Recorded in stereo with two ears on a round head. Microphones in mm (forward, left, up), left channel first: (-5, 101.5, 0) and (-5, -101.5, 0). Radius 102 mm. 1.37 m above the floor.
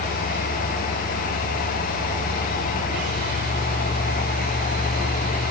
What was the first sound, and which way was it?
Only background noise.